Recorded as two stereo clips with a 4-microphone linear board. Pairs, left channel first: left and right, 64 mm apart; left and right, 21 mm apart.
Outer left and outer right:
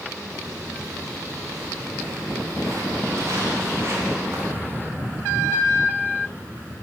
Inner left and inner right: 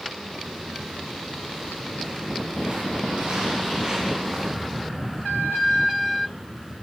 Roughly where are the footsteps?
Right.